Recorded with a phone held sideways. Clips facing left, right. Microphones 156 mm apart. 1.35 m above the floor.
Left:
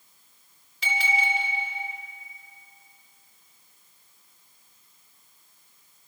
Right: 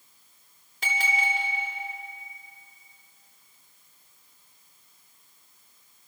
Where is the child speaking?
No child speaking in this recording.